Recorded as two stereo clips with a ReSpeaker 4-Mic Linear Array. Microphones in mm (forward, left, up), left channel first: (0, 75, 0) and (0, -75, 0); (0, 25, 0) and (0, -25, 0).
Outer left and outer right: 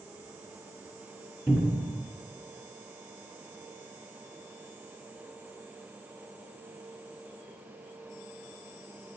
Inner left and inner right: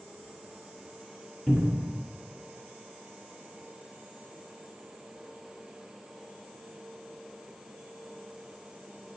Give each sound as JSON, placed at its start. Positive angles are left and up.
{"t": 1.5, "sound": "a cupboard door", "side_deg": 0, "distance_m": 1.5}